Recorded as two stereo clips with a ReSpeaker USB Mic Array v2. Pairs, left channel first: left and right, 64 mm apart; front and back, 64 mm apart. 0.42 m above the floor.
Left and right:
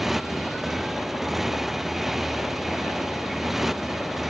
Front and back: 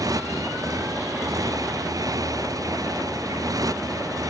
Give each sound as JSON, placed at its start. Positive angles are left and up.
{"t": 0.0, "sound": "a motorcycle", "azimuth_deg": -175}